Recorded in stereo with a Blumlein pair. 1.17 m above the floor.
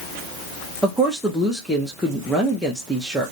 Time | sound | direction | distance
0.8 | a woman speaking | straight ahead | 0.6 m